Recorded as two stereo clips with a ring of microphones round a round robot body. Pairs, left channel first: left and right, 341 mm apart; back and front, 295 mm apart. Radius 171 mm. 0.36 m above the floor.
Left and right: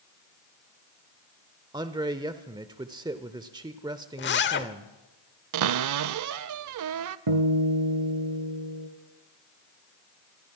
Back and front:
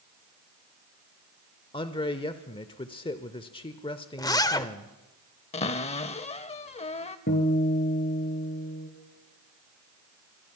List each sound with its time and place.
1.7 s a man speaking: 145° right, 0.9 m
4.2 s a zipper: 110° left, 0.9 m
5.5 s a cupboard door: 115° right, 0.6 m
7.3 s a guitar: 115° right, 2.5 m